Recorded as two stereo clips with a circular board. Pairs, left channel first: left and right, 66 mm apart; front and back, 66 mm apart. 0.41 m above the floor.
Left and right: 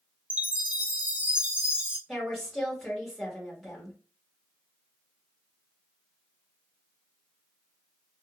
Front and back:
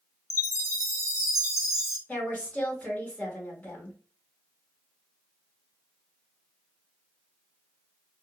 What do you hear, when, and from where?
0.3 s a chime: 30° right, 0.8 m
2.1 s a woman speaking: 5° right, 1.2 m